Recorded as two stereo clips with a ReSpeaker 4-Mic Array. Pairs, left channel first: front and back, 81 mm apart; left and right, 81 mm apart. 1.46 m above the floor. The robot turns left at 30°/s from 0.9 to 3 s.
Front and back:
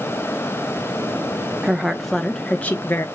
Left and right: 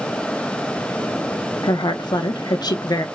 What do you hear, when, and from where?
1.6 s a woman speaking: 105° left, 0.5 m; by 3.0 s 60° left, 0.5 m